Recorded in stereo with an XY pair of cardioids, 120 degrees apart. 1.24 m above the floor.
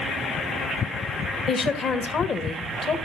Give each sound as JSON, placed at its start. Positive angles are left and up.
{"t": 1.5, "sound": "a woman speaking", "azimuth_deg": 45, "distance_m": 1.6}